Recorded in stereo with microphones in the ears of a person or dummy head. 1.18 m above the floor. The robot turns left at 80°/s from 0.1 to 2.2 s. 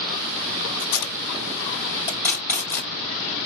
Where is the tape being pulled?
45° left (ahead or behind), 1.5 m; by 2.9 s 10° left (ahead or behind), 1.5 m.